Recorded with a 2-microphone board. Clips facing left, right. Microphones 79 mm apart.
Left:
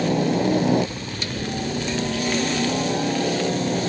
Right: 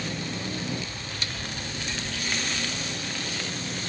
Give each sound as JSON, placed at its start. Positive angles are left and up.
{"t": 0.0, "sound": "a helicopter", "side_deg": 65}